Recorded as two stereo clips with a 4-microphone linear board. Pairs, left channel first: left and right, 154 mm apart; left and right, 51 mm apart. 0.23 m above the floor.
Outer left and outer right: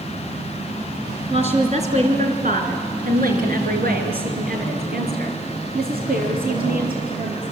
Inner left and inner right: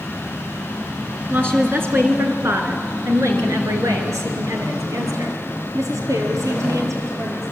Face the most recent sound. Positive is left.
turn(degrees=-65)  # may be behind; listen again after turning